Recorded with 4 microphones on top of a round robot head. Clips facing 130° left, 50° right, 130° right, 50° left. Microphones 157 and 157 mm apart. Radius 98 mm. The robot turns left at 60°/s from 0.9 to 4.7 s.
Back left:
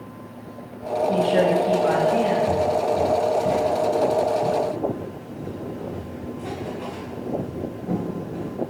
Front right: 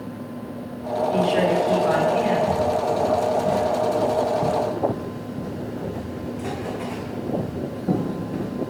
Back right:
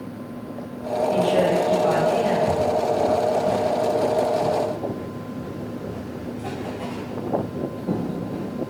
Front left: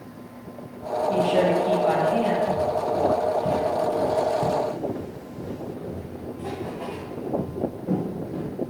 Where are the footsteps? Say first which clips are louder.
Back left 1 dB, back right 3 dB; 145° right, 0.8 m; by 8.5 s 50° right, 3.5 m.